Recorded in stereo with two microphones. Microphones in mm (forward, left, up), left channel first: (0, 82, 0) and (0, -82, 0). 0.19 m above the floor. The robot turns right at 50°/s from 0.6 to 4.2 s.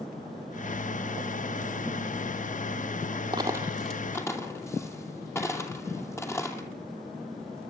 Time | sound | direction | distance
3.3 | a dropped coin | 25° right (ahead or behind) | 2.5 m